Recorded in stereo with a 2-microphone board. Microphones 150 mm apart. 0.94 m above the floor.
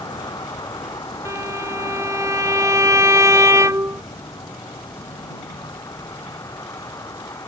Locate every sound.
0.0 s a vehicle: 25° left (ahead or behind); by 7.5 s 20° left (ahead or behind)
1.2 s a violin: 20° right (ahead or behind)